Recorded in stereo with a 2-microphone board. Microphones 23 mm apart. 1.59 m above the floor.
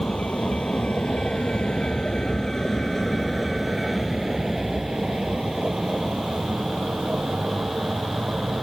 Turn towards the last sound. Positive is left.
turn(degrees=-55)  # may be behind; listen again after turning